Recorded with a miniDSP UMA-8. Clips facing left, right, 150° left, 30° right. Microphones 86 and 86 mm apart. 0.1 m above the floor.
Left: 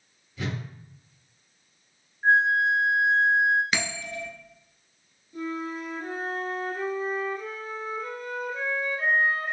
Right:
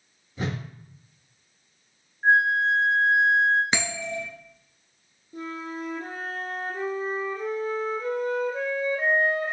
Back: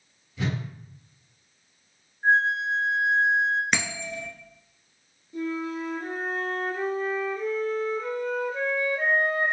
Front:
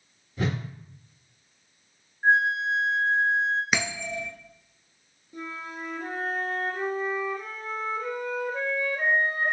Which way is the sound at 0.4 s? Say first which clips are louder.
Right 2 dB, front 1 dB; 55° right.